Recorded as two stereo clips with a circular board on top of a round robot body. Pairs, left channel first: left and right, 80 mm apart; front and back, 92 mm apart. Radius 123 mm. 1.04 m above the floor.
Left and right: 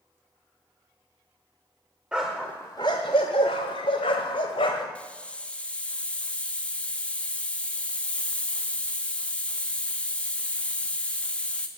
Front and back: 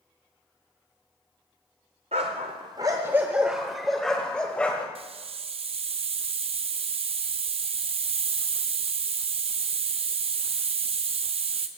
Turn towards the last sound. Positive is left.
turn(degrees=165)